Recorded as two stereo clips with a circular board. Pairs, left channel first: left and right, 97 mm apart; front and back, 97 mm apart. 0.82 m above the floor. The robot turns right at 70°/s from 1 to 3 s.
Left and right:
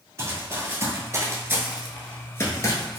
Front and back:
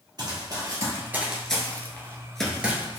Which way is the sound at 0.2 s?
145° right.